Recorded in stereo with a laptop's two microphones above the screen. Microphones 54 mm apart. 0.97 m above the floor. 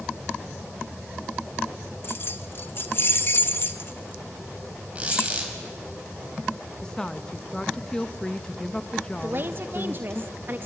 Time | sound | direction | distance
2.0 | keys jangling | 45° left (ahead or behind) | 0.7 m
5.0 | a squeak | 25° right (ahead or behind) | 4.5 m
6.8 | a woman speaking | 15° left (ahead or behind) | 0.7 m
9.2 | a woman speaking | 40° right (ahead or behind) | 1.0 m